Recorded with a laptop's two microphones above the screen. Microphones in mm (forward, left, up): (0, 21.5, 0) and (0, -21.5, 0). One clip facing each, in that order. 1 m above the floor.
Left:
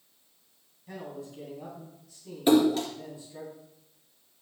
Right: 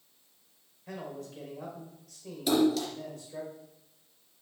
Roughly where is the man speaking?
Right.